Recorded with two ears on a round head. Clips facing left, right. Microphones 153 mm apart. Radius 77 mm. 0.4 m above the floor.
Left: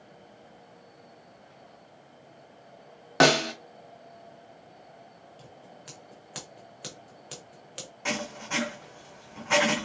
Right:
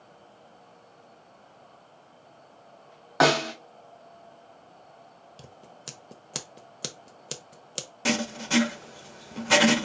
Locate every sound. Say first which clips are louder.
3.2 s a snare drum: even; 30° left (ahead or behind), 0.7 m
5.4 s scissors: right 2 dB; 55° right (ahead or behind), 0.7 m
8.1 s writing: right 6 dB; 45° right (ahead or behind), 0.7 m